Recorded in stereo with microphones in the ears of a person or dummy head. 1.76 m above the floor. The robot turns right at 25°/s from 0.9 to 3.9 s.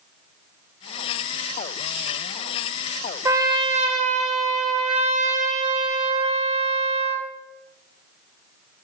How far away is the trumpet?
About 1.1 m.